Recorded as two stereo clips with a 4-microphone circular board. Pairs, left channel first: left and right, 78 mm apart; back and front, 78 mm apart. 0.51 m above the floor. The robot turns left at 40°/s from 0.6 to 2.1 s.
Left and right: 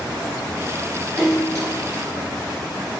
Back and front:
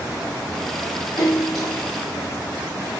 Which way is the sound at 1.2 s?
175° right.